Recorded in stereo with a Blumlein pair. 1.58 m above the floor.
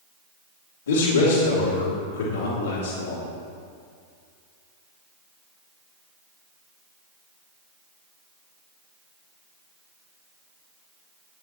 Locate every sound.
0.9 s a man speaking: 70° left, 2.5 m